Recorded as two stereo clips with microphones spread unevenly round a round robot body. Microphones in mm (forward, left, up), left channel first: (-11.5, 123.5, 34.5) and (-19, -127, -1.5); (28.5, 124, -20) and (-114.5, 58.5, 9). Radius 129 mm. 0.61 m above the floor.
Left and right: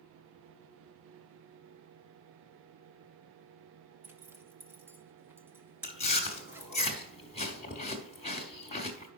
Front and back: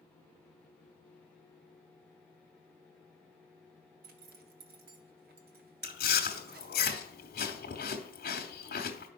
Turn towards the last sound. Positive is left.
turn(degrees=20)